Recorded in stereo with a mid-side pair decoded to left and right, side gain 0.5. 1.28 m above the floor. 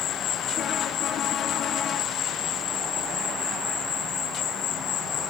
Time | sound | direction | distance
0.0 | an insect | 65° left | 1.4 m